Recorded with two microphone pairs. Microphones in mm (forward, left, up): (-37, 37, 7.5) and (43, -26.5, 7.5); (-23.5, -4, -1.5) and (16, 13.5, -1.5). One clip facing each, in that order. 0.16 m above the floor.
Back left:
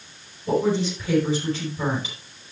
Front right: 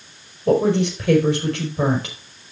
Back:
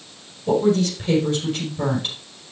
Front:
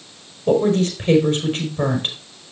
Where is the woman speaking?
25° right, 5 m.